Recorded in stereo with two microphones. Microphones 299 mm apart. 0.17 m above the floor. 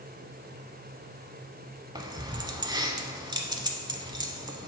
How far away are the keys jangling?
About 0.7 m.